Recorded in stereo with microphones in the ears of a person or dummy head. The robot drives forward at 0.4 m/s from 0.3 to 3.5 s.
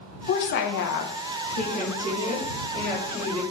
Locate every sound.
0.3 s a woman speaking: 50° left (ahead or behind), 0.5 m; by 3.4 s 20° left (ahead or behind), 1.1 m